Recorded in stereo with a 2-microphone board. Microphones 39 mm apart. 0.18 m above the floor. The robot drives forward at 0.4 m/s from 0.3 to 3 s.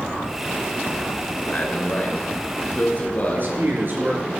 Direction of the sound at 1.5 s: 40° left (ahead or behind).